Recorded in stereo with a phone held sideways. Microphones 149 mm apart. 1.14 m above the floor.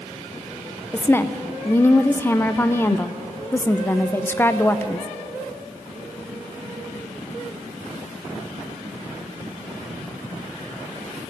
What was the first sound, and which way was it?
A woman speaking, 15° left (ahead or behind).